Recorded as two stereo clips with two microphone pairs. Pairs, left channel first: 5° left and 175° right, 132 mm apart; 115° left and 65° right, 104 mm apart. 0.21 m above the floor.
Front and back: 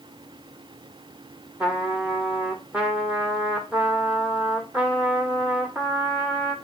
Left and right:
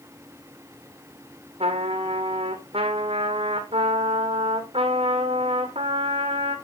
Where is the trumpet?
90° right, 1.5 m.